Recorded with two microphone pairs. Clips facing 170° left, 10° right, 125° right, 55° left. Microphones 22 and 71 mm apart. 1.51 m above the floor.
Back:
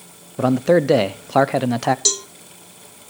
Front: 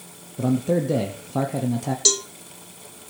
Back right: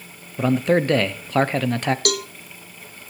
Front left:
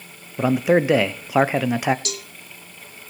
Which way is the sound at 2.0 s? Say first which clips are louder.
Even, back right 10 dB; 95° right.